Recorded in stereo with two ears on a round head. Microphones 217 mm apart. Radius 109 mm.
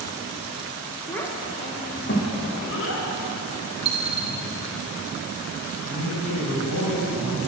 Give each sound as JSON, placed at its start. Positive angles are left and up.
{"t": 1.1, "sound": "a child speaking", "side_deg": 5, "distance_m": 0.8}
{"t": 3.9, "sound": "a dropped coin", "side_deg": -25, "distance_m": 0.7}
{"t": 5.8, "sound": "a man speaking", "side_deg": 75, "distance_m": 1.8}